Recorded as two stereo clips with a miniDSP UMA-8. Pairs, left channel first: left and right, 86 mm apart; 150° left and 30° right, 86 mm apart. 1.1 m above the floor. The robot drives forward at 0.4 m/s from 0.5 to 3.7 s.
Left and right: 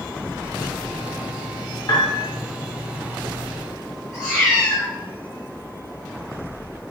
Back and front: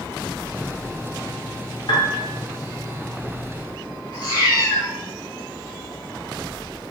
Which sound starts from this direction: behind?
A cat meowing, at 4.1 s.